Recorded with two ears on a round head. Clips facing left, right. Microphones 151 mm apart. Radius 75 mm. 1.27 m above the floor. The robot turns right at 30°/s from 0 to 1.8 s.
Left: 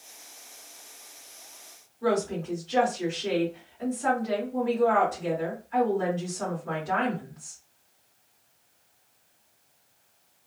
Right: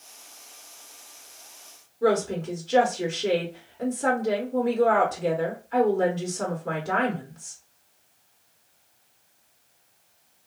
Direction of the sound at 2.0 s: 65° right (ahead or behind).